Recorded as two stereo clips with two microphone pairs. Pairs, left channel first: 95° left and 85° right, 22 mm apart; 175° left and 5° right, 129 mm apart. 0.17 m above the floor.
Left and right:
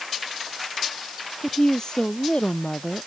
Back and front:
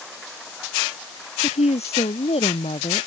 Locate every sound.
1.4 s a woman speaking: 150° left; by 3.1 s 135° left